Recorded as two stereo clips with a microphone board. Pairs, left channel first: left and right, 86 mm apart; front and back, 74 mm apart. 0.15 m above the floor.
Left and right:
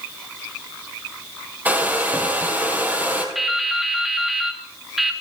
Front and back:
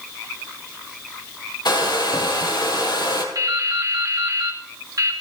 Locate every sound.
1.6 s a hair dryer: 20° right, 2.5 m
3.4 s dripping: 175° right, 2.5 m